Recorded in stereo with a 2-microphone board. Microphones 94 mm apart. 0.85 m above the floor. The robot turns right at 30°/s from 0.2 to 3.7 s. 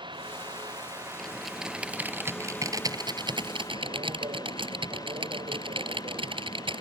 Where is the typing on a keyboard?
175° left; by 6.8 s 110° right.